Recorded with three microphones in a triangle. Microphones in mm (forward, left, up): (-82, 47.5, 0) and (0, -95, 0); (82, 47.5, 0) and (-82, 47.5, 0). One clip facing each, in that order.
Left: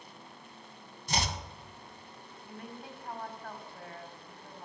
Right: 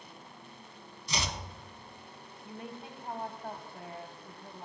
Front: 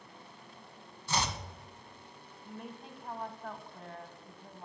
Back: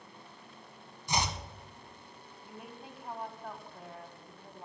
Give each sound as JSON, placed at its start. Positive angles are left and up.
{"t": 1.1, "sound": "chopping", "azimuth_deg": 110, "distance_m": 0.9}
{"t": 2.5, "sound": "a woman speaking", "azimuth_deg": -100, "distance_m": 1.1}